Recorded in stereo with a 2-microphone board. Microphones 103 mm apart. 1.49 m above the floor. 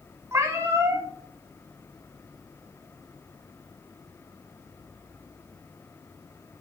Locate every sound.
0.3 s a cat meowing: 25° right (ahead or behind), 1.1 m